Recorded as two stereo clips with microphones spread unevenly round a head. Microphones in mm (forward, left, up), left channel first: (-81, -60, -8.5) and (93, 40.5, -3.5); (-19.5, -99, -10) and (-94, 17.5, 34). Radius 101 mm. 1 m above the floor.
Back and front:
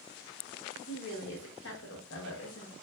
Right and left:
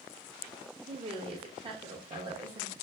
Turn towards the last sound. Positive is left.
turn(degrees=180)